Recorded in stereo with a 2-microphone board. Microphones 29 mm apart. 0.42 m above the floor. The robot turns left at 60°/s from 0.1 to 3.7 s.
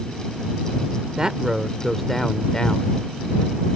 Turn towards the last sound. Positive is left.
turn(degrees=70)